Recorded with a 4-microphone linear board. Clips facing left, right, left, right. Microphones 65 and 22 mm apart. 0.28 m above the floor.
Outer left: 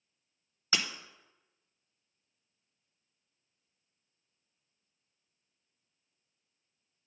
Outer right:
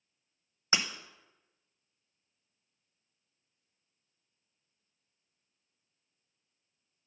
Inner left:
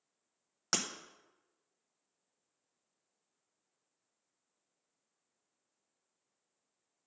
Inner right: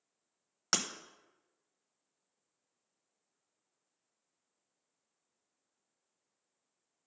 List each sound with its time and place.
0.7 s breaking glass: 20° right (ahead or behind), 0.5 m